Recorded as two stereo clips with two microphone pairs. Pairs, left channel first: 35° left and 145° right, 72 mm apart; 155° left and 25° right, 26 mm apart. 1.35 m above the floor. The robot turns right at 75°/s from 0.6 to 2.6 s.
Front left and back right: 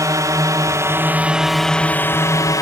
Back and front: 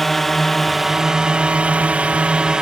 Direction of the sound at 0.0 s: 125° right.